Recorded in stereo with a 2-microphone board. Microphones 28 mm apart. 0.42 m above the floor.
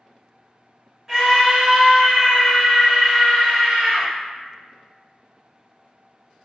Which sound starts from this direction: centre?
A scream, at 1.1 s.